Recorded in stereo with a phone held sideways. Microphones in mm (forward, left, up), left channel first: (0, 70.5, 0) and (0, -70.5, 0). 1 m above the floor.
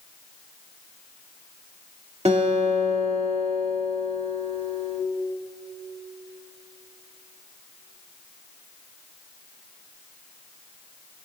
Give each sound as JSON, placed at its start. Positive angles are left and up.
{"t": 2.2, "sound": "a guitar", "side_deg": -50, "distance_m": 2.0}